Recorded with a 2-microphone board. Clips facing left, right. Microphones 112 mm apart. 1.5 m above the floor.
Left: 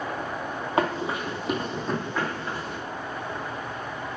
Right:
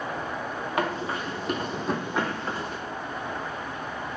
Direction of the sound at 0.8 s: 25° left (ahead or behind).